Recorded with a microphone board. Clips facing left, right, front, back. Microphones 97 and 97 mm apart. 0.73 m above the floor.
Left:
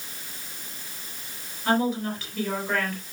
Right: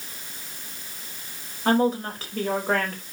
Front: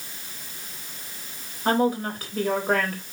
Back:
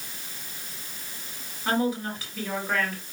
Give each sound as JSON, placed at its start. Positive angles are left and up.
{"t": 1.6, "sound": "a woman speaking", "azimuth_deg": -40, "distance_m": 3.5}